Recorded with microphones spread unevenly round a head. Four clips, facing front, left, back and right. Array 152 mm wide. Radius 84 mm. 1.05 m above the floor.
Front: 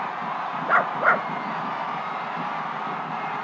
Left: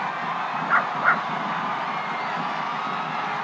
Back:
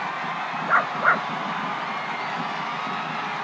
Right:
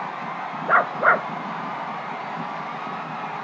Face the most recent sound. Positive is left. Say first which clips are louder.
# right 4 dB, even
turn(degrees=-75)